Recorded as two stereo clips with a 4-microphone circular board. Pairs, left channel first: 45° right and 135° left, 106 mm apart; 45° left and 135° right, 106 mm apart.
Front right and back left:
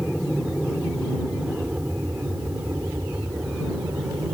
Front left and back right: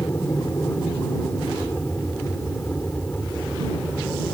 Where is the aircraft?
50° left; by 4.3 s 115° left.